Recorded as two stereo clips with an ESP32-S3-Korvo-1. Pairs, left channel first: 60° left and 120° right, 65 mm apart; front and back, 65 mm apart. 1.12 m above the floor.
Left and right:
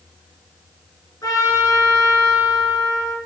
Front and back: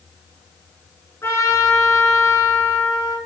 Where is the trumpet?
45° left, 7 m.